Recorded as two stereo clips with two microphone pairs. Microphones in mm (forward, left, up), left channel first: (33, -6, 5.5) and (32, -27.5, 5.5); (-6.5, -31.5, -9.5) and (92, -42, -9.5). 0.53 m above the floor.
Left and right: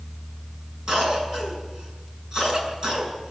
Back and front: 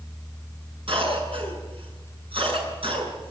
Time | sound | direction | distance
0.9 | a cough | 30° right | 7 m